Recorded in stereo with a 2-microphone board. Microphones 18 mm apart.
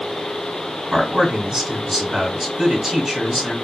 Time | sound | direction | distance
0.9 | a man speaking | 45° right (ahead or behind) | 1.6 m